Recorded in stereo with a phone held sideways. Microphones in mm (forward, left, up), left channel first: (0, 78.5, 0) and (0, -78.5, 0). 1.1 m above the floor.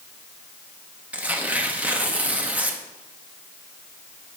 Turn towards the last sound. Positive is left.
turn(degrees=-10)  # may be behind; listen again after turning